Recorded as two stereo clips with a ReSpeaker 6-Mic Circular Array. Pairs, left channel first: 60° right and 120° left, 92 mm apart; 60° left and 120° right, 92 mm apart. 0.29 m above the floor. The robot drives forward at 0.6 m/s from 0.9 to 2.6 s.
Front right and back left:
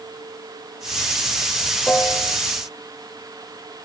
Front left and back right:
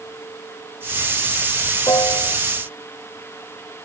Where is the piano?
15° left.